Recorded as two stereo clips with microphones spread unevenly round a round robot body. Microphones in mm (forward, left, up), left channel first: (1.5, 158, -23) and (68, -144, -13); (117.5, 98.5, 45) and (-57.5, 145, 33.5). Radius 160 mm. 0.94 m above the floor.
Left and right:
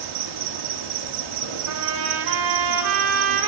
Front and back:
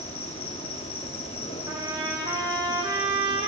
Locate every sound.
0.0 s an insect: 85° right, 2 m
1.7 s a trumpet: 115° right, 3.5 m